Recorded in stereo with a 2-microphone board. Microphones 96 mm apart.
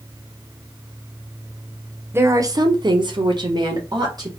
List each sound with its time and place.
2.1 s a woman speaking: 25° right (ahead or behind), 0.6 m; by 4.3 s 45° right (ahead or behind), 1.2 m